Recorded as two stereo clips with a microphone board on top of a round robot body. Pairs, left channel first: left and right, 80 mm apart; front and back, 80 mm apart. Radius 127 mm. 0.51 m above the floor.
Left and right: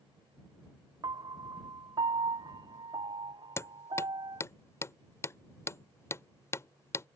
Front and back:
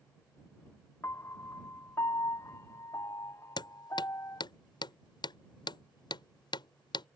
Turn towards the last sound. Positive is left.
turn(degrees=30)